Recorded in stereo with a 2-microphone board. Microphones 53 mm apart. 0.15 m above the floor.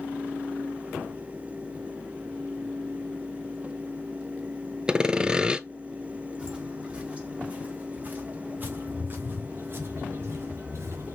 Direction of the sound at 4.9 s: 15° right (ahead or behind).